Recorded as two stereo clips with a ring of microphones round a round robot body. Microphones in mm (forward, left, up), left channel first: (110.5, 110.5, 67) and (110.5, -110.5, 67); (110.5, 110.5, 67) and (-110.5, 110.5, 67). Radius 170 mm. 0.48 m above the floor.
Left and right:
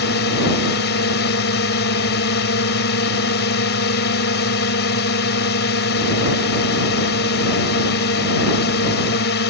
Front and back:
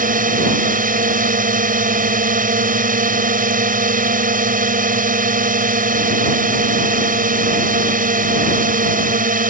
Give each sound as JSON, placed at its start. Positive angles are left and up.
{"t": 0.0, "sound": "a drone", "azimuth_deg": 135}